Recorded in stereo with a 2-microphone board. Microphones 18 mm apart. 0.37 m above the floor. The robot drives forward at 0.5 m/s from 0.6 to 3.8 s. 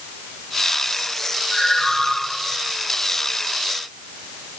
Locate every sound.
1.5 s a ringtone: 55° left (ahead or behind), 6 m